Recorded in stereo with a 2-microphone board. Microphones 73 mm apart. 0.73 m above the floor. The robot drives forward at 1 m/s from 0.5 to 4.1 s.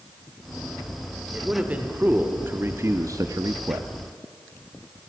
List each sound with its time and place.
1.3 s a man speaking: 20° right (ahead or behind), 2.5 m; by 3.9 s 45° right (ahead or behind), 1.0 m